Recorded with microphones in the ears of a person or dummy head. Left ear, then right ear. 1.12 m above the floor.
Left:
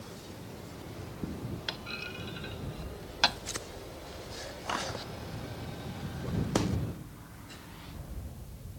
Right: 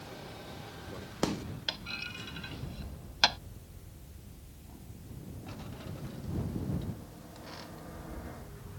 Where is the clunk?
10° right (ahead or behind).